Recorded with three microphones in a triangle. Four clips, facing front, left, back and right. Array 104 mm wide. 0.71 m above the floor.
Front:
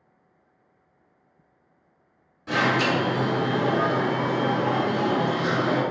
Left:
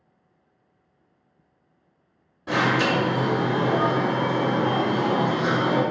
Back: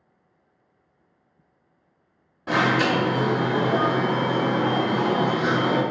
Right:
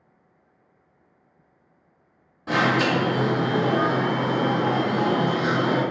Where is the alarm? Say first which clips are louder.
Right 1 dB, back 2 dB; 175° right, 1.5 m.